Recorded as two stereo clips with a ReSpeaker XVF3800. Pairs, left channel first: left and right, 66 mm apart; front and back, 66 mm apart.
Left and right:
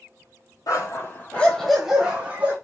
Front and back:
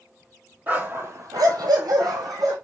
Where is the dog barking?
115° left, 1.0 m; by 2.5 s 155° right, 1.7 m.